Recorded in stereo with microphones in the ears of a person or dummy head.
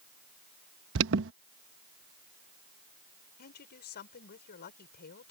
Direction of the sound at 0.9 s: 75° right (ahead or behind).